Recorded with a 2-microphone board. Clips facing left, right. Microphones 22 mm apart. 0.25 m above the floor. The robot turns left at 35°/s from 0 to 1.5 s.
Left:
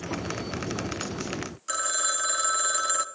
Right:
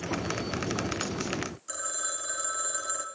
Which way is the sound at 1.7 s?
45° left (ahead or behind).